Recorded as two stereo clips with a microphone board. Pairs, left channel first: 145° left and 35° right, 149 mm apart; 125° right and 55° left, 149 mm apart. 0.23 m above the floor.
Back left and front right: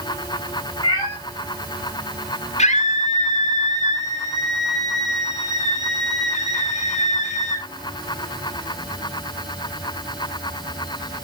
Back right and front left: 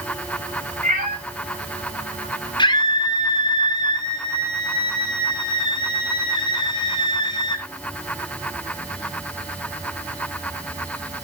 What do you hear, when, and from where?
0.8 s a cat meowing: 85° left, 7.5 m
2.6 s a scream: straight behind, 3 m